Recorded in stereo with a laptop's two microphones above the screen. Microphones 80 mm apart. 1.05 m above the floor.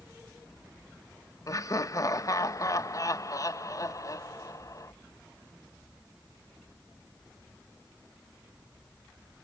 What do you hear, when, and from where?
1.5 s laughter: 45° left (ahead or behind), 0.8 m